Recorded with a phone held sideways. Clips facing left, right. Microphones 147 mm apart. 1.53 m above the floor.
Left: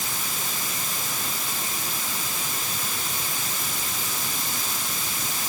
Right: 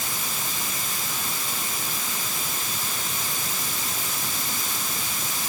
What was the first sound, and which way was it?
Only background noise.